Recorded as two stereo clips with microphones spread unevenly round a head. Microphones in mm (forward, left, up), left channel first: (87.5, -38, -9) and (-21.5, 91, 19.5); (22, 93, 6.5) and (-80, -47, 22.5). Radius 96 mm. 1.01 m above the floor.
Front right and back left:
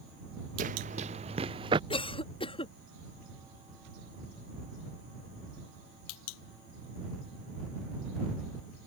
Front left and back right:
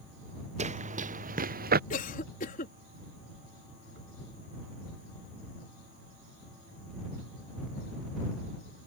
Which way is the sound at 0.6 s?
175° right.